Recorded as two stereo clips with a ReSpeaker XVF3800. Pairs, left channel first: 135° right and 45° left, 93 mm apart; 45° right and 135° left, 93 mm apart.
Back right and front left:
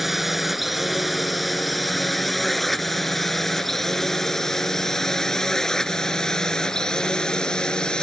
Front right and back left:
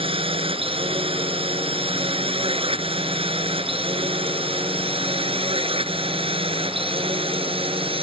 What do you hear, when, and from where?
0.0 s a drone: 130° left; by 8.0 s 145° left